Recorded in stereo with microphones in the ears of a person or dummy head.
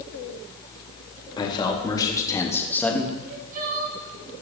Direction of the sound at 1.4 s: 25° left (ahead or behind).